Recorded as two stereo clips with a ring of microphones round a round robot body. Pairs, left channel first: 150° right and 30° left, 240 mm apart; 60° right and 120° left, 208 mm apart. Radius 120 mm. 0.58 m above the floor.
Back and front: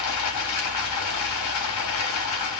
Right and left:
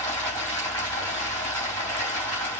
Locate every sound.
0.0 s running water: 140° right, 3.5 m